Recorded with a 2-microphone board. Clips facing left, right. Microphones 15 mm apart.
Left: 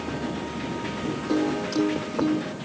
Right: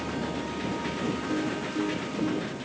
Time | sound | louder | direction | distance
1.3 | a piano | left 5 dB | 60° left (ahead or behind) | ?